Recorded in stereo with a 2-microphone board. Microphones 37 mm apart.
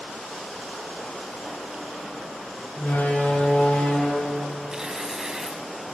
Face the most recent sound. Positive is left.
turn(degrees=-20)  # may be behind; listen again after turning